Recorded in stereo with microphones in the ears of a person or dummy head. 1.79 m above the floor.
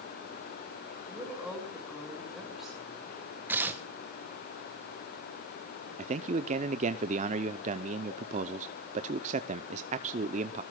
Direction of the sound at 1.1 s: 5° right (ahead or behind).